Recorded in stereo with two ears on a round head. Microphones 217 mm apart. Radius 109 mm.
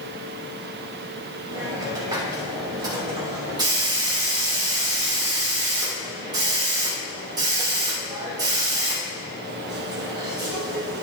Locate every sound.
1.5 s a hiss: 20° right (ahead or behind), 3 m